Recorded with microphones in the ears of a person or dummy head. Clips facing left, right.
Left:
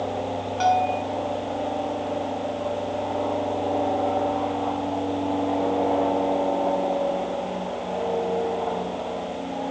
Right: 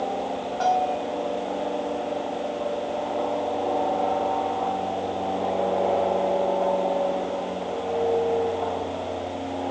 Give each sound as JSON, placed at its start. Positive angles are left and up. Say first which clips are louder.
{"t": 0.6, "sound": "a bell", "louder": "left 2 dB", "side_deg": 40, "distance_m": 2.5}